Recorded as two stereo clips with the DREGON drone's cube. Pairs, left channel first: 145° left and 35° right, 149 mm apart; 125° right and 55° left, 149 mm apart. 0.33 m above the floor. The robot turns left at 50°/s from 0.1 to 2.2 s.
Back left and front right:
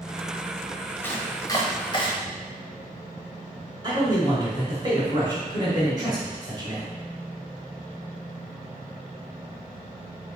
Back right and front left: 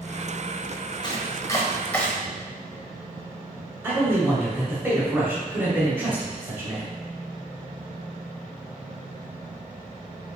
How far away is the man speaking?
About 1.2 m.